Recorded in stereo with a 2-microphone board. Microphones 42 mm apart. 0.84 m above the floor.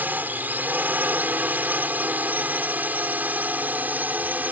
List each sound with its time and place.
0.0 s a drone: 45° right (ahead or behind); by 4.5 s 40° right (ahead or behind)